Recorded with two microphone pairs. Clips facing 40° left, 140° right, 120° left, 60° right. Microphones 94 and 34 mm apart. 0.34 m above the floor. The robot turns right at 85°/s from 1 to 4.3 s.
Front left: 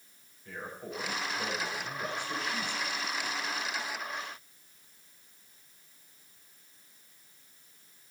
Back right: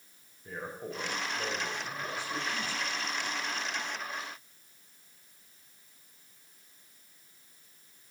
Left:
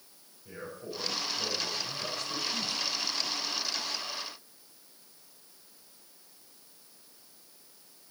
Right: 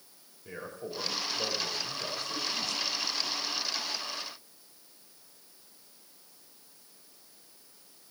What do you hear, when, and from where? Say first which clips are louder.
0.5 s a man speaking: back right 2 dB, right 1 dB; 85° right, 6 m; by 2.8 s 70° left, 6 m